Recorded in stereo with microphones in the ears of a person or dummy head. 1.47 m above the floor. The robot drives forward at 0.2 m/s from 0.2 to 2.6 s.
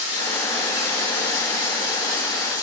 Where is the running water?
35° left (ahead or behind), 1.5 m; by 2.6 s 25° left (ahead or behind), 1.9 m.